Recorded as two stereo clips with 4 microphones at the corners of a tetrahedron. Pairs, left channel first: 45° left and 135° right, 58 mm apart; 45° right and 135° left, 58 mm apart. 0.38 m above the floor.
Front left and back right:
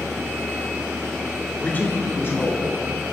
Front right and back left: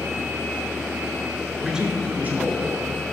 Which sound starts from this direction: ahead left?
A man speaking, at 1.6 s.